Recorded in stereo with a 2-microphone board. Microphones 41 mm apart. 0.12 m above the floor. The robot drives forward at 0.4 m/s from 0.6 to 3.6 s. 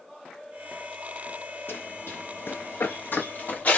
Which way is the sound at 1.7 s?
75° left (ahead or behind).